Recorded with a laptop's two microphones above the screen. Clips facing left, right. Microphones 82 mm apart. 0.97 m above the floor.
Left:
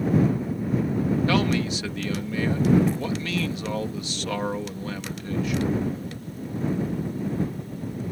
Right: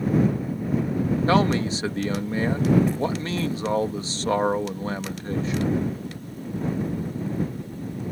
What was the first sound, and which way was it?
A man speaking, 35° right (ahead or behind).